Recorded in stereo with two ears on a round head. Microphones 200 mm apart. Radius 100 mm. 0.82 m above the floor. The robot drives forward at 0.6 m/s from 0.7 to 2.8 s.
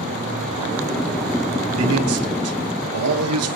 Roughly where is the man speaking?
Right.